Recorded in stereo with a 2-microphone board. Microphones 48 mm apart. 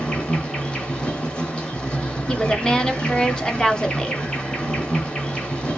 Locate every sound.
0.0 s an insect: 20° left (ahead or behind), 1.1 m
2.3 s a woman speaking: 15° left (ahead or behind), 0.7 m